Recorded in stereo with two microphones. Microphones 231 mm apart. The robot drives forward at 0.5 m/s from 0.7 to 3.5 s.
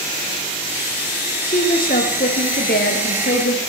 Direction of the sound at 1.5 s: 35° left (ahead or behind).